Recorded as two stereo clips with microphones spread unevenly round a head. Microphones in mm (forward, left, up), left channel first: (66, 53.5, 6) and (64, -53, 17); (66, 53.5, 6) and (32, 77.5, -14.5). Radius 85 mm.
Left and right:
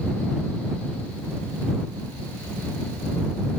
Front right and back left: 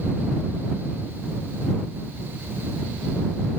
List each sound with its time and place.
Only background noise.